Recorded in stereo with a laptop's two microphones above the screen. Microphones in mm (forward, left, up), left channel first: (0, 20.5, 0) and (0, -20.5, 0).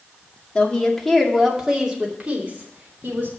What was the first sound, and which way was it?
A woman speaking, 20° left (ahead or behind).